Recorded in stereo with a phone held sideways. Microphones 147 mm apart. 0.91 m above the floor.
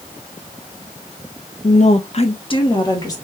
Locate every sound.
1.6 s a woman speaking: 50° left (ahead or behind), 0.6 m; by 3.2 s 25° left (ahead or behind), 1.2 m